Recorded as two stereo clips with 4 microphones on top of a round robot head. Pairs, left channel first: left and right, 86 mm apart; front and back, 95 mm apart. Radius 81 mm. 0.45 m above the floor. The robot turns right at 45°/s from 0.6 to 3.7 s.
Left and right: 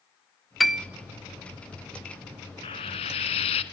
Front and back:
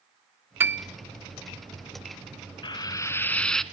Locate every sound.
0.6 s a piano: straight behind, 0.9 m; by 0.8 s 170° right, 0.9 m
2.6 s frying: 40° left, 1.0 m; by 3.6 s 85° left, 1.0 m